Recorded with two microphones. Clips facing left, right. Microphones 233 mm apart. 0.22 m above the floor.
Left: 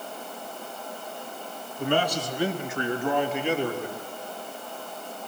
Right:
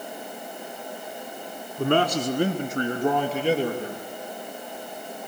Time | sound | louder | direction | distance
1.8 | a man speaking | right 4 dB | 60° right (ahead or behind) | 1.8 m